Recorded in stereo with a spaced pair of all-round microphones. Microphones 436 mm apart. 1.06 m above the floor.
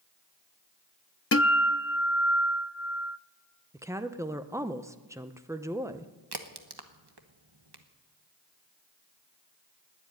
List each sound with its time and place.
1.3 s a guitar: 35° left (ahead or behind), 0.5 m
3.7 s a woman speaking: 5° right (ahead or behind), 0.6 m
6.3 s a crack: 60° right (ahead or behind), 1.2 m